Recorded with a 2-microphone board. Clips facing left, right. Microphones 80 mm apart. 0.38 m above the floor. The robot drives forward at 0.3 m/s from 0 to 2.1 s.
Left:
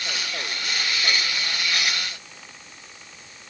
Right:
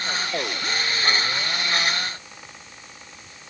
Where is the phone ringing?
I don't hear a phone ringing.